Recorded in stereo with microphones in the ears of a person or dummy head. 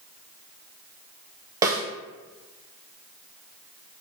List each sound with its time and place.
1.6 s a snare drum: 20° right (ahead or behind), 0.5 m